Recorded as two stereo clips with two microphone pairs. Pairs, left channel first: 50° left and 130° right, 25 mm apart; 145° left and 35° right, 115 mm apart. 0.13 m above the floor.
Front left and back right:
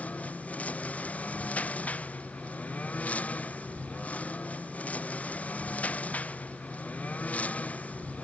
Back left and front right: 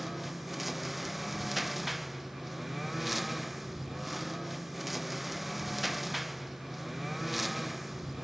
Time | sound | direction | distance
0.0 | a lawn mower | 55° left | ?